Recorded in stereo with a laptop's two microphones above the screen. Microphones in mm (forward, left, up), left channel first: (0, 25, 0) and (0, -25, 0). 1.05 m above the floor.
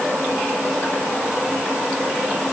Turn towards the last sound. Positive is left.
No sound to turn to.